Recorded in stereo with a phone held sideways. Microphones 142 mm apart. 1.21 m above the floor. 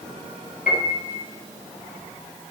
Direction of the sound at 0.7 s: 80° left.